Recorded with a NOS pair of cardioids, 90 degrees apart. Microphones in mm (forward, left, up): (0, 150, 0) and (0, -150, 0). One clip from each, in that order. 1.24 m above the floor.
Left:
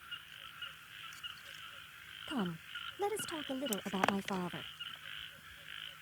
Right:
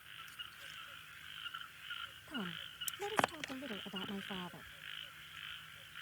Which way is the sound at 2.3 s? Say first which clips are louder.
Left 5 dB; 45° left.